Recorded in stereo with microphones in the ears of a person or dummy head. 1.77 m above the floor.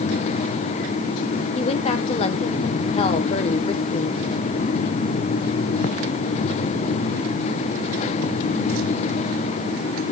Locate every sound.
1.6 s a woman speaking: 35° left (ahead or behind), 1.1 m